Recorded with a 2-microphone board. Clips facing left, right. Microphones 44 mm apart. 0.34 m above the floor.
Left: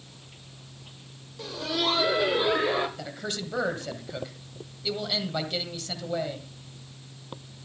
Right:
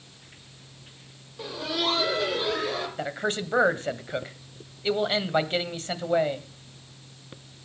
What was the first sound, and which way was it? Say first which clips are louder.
Laughter: even; 15° right (ahead or behind).